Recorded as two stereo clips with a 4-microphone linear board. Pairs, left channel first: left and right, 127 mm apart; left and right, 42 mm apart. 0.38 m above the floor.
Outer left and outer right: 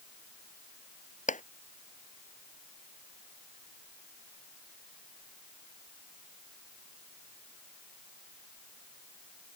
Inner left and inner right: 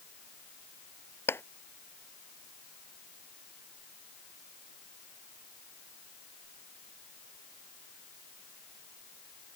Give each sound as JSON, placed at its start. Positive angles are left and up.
{"t": 1.3, "sound": "a clap", "side_deg": 80}